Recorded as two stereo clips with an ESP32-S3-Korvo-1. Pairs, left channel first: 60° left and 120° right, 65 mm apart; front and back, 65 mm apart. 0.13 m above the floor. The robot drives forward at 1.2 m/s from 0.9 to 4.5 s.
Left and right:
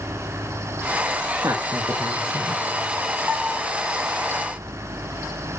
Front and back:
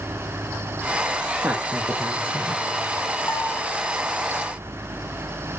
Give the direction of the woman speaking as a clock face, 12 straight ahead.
3 o'clock.